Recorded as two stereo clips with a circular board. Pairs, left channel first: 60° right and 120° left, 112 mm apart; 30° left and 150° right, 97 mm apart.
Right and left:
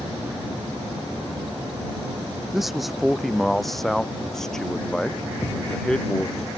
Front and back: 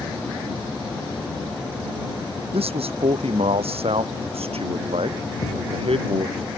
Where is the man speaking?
150° right; by 6.4 s 140° right.